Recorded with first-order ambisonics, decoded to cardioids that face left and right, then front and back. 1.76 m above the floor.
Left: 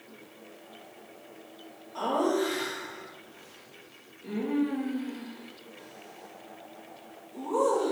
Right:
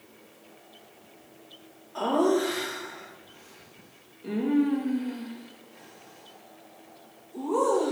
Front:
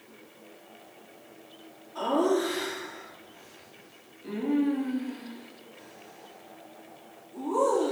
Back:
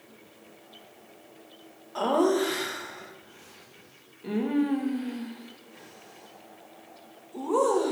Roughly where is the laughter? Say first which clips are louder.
Right 3 dB, back 2 dB; behind.